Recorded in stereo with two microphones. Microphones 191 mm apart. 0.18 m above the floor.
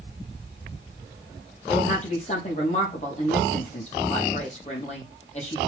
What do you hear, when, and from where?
1.7 s a woman speaking: 35° left (ahead or behind), 6 m